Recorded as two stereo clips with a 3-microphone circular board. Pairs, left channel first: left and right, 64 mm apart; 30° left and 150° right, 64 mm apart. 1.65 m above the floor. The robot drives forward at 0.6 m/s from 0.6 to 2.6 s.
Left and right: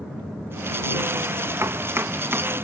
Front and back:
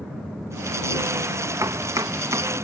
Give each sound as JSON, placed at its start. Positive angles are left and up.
{"t": 1.6, "sound": "chopping", "azimuth_deg": -130}